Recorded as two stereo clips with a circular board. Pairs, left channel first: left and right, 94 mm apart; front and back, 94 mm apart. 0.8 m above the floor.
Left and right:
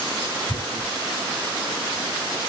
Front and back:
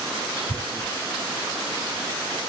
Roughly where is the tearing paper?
Behind left.